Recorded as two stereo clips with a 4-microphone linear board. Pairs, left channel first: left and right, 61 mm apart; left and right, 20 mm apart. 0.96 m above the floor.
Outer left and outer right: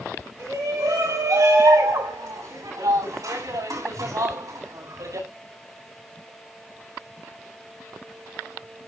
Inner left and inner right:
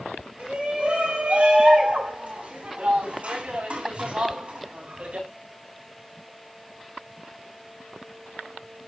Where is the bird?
No bird in this recording.